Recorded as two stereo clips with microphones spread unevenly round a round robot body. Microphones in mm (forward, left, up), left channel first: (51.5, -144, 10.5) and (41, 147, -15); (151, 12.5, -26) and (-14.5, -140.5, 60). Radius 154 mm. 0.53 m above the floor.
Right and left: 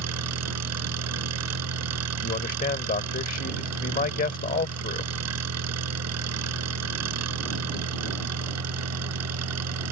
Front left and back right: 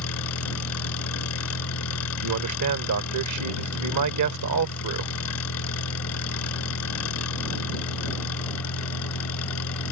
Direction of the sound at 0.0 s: 55° left.